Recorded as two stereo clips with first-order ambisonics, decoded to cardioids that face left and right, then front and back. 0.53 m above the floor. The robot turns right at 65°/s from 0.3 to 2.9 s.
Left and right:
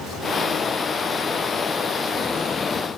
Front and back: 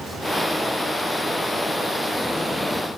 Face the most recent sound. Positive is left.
No sound to turn to.